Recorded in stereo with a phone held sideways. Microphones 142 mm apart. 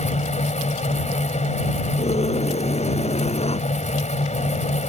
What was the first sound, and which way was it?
A fan, 55° left (ahead or behind).